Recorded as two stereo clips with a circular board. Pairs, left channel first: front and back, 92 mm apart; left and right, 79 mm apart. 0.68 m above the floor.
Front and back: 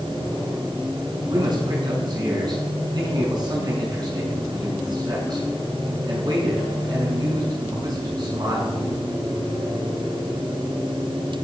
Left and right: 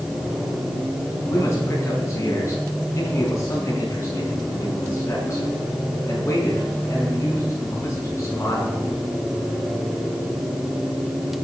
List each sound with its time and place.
1.3 s a man speaking: 140° left, 6.5 m